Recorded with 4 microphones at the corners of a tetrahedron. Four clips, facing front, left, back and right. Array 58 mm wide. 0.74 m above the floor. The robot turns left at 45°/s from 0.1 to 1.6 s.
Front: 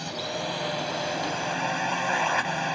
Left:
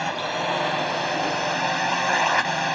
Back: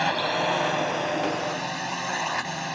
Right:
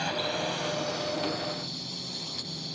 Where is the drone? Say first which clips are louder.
Left 5 dB, back 8 dB; 150° left; by 2.8 s 85° left.